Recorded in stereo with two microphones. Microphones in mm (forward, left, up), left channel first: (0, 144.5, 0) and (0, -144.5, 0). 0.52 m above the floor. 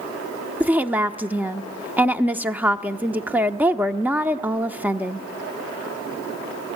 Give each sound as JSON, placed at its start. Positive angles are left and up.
{"t": 0.6, "sound": "a woman speaking", "side_deg": -5, "distance_m": 0.7}